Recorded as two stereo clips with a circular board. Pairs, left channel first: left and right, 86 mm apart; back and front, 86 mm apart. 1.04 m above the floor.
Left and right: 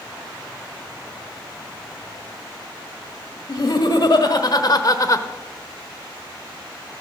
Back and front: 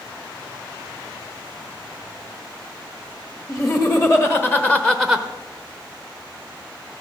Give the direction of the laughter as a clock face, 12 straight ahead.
8 o'clock.